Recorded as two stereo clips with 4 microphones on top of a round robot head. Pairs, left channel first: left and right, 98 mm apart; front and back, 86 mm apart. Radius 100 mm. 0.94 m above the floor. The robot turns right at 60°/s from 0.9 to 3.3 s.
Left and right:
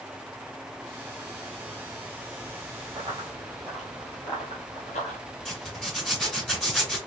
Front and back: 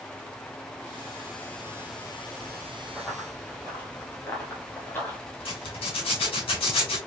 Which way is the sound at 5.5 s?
5° left.